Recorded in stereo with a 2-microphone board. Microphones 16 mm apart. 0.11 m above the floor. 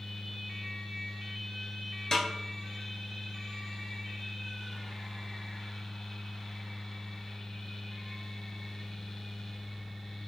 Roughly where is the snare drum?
Left.